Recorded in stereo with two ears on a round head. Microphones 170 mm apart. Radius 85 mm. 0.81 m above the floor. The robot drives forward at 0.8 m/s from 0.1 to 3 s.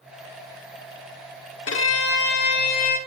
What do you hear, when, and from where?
1.7 s a violin: 75° left (ahead or behind), 1.6 m; by 3.0 s 50° left (ahead or behind), 2.0 m